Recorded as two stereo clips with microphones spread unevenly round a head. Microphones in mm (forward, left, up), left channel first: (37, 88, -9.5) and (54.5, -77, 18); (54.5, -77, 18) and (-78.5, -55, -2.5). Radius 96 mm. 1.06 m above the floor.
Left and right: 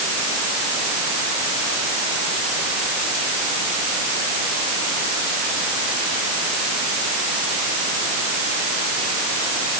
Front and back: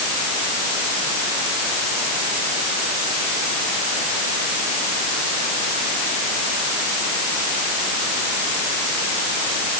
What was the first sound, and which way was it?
Only background noise.